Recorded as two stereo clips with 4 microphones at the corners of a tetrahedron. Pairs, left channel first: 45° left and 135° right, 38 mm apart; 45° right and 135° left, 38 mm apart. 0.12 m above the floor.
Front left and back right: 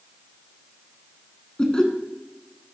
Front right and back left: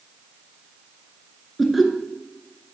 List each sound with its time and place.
1.6 s laughter: 60° left, 1.4 m